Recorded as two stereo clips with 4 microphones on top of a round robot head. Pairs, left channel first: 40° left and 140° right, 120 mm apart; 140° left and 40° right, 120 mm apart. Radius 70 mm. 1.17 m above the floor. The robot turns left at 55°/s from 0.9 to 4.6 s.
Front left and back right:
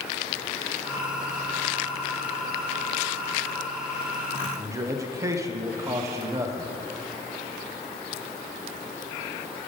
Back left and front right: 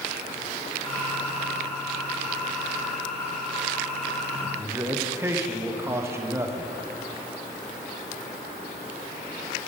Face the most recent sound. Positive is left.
turn(degrees=-95)